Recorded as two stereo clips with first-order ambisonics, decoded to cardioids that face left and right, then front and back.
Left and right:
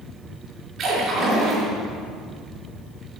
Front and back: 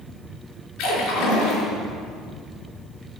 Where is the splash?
30° right, 4 m.